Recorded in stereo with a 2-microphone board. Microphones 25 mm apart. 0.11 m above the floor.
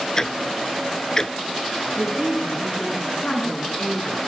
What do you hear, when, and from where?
0.2 s ticking: 25° left (ahead or behind), 0.6 m
2.0 s a woman speaking: 80° left, 9.5 m